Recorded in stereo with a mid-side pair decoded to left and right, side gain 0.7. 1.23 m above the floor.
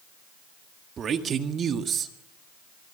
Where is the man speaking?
35° right, 1.8 m.